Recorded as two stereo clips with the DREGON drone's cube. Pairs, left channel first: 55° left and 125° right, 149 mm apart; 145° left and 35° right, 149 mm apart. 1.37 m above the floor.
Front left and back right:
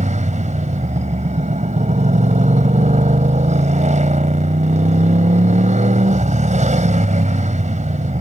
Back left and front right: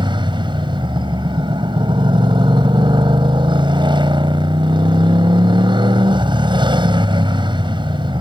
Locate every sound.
0.0 s a motorcycle: 90° right